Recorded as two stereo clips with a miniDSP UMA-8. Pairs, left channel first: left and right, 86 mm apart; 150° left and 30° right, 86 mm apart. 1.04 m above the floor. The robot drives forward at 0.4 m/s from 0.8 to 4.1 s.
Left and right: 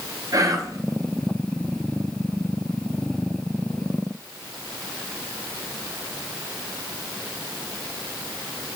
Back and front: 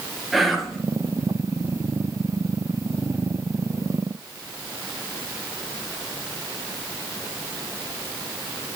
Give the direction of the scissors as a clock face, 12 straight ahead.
No scissors in this recording.